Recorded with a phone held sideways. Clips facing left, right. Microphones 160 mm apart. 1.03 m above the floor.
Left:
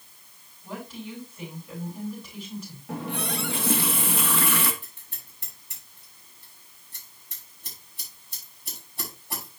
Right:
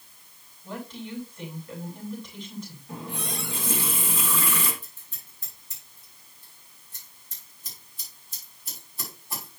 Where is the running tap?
75° left (ahead or behind), 1.2 m.